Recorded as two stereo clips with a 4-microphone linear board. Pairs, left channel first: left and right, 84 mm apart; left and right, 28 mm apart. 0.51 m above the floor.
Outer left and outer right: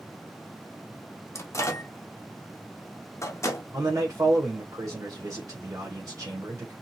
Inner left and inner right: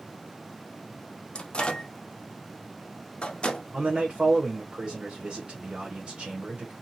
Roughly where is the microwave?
Left.